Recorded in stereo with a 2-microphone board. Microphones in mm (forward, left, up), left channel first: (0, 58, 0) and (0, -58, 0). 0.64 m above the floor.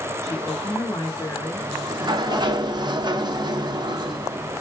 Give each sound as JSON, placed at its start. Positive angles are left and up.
{"t": 0.2, "sound": "a woman speaking", "side_deg": 25, "distance_m": 1.0}
{"t": 1.6, "sound": "a sliding door", "side_deg": -40, "distance_m": 0.5}